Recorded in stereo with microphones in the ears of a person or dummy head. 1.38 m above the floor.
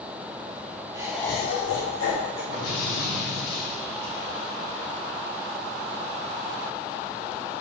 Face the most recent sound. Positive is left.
turn(degrees=85)